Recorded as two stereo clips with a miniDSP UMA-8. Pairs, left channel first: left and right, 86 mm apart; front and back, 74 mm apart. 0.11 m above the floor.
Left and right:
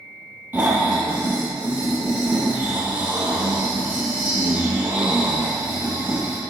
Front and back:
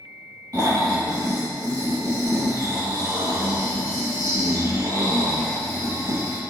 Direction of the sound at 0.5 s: 155° right.